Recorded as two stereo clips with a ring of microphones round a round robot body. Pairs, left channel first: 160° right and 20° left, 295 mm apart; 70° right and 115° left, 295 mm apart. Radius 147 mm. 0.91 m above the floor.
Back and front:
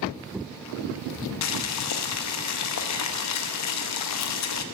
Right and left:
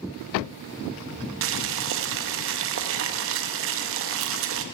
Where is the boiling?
165° left, 0.6 m.